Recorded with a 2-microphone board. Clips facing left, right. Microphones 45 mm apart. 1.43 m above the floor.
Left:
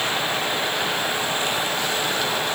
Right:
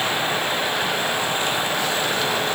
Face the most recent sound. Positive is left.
No sound to turn to.